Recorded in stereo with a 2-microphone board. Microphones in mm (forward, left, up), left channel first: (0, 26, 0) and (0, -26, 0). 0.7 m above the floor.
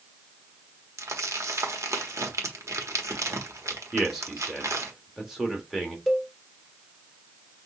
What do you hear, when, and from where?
1.0 s crumpling: 80° right, 1.1 m
3.9 s a man speaking: 10° right (ahead or behind), 1.4 m
6.1 s a cowbell: 5° right (ahead or behind), 1.0 m